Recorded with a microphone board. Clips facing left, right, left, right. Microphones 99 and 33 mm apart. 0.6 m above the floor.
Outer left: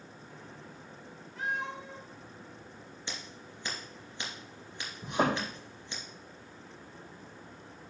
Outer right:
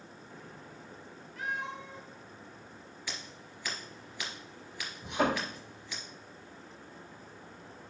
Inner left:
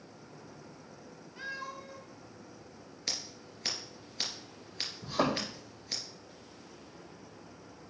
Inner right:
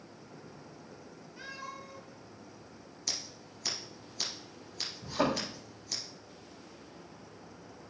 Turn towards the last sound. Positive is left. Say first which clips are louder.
# outer left 1 dB, even
turn(degrees=40)  # may be behind; listen again after turning